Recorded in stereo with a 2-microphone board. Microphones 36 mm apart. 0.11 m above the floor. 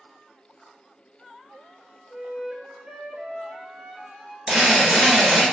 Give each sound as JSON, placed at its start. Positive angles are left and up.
{"t": 2.1, "sound": "a flute", "side_deg": -15, "distance_m": 0.6}
{"t": 4.5, "sound": "a drill", "side_deg": -15, "distance_m": 1.4}